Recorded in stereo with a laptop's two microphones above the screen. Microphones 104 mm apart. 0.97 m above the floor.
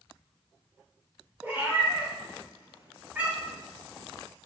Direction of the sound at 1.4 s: 15° right (ahead or behind).